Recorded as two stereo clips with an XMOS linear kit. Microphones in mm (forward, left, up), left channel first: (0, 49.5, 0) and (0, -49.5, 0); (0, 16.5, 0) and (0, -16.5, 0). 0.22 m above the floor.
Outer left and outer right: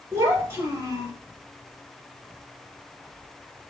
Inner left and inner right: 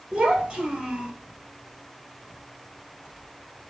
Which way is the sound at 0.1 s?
25° right (ahead or behind).